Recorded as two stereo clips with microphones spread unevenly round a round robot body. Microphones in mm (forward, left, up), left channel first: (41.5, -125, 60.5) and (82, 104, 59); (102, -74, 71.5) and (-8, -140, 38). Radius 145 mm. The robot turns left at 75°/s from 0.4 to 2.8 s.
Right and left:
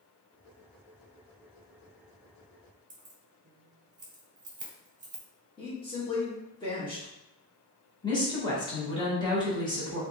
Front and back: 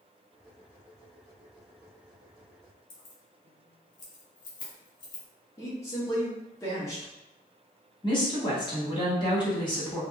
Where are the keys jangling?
35° left, 0.8 m.